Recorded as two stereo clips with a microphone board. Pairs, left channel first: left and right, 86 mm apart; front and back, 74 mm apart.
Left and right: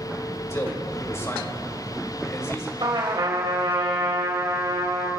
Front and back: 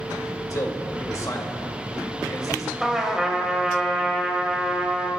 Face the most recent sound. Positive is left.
turn(degrees=-95)